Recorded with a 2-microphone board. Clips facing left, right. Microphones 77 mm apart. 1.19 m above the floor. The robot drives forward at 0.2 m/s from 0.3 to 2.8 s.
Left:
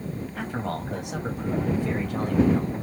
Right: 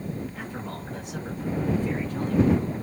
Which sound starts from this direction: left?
A man speaking, at 0.4 s.